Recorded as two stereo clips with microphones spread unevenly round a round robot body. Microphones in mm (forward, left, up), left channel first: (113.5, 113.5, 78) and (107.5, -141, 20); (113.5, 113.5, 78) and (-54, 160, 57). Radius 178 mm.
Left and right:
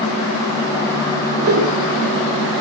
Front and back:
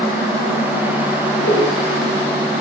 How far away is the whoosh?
About 8.5 m.